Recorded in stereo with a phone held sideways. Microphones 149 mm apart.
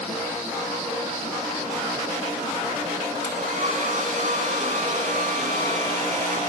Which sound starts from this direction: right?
A hair dryer, at 3.2 s.